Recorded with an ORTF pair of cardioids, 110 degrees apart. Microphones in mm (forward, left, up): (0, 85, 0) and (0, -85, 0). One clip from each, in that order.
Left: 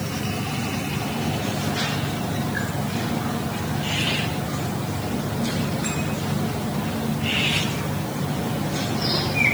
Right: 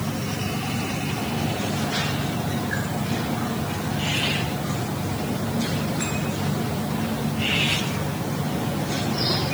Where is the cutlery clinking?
No cutlery clinking in this recording.